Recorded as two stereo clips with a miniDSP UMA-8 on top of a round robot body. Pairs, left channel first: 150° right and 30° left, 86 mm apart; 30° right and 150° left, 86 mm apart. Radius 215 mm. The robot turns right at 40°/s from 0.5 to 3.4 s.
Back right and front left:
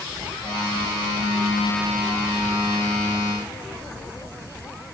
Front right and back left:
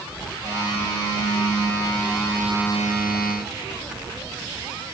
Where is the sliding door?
No sliding door in this recording.